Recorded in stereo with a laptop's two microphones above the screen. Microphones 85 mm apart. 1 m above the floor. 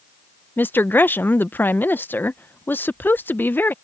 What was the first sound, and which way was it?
A woman speaking, 25° left (ahead or behind).